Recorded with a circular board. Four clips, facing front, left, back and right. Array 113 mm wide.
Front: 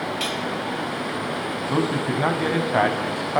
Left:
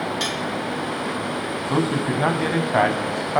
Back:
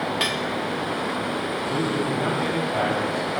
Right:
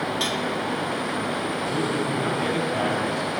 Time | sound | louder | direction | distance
0.2 | cutlery clinking | even, back 1 dB | 165° left | 1.7 m
1.7 | a man speaking | left 6 dB, front 3 dB | 60° left | 3.5 m